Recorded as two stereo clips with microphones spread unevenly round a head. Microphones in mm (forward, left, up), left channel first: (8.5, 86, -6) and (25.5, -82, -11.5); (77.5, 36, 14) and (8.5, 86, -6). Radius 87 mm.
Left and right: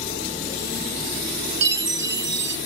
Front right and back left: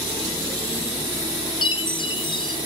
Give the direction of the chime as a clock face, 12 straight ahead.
2 o'clock.